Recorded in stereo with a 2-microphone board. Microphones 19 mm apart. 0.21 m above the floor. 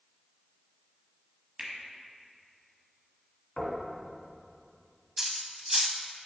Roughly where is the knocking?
Left.